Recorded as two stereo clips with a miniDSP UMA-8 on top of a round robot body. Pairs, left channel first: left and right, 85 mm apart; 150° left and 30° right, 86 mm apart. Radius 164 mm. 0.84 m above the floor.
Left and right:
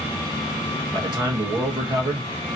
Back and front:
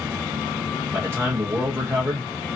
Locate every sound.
0.9 s a man speaking: 85° right, 1.4 m